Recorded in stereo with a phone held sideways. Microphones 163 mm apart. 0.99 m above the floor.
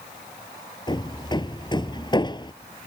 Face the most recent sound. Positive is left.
turn(degrees=25)  # may be behind; listen again after turning